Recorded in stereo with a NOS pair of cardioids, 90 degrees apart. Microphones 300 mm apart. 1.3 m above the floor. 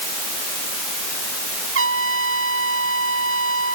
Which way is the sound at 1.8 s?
45° right.